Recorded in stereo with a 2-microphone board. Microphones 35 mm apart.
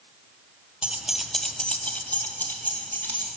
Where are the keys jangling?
35° right (ahead or behind), 0.6 m; by 3.3 s 70° left (ahead or behind), 1.6 m.